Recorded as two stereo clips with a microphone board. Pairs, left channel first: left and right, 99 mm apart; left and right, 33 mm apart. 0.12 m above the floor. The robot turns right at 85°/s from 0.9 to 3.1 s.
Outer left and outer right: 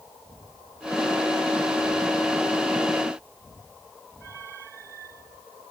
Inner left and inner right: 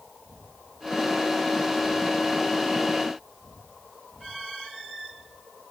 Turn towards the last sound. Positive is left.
No sound to turn to.